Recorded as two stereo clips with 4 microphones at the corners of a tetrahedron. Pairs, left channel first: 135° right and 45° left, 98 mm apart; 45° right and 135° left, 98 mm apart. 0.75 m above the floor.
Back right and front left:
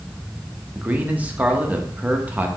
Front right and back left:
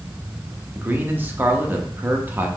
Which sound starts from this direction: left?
A man speaking, at 0.8 s.